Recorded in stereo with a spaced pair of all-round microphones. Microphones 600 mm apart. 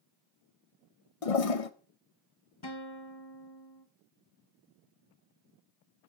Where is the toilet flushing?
65° left (ahead or behind), 0.8 m.